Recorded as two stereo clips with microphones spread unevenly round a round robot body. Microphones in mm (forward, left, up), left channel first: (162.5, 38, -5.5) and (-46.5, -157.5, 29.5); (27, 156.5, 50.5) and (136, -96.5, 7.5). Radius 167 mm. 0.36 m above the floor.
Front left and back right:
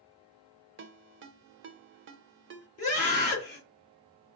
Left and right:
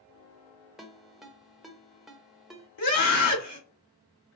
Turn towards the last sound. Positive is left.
turn(degrees=110)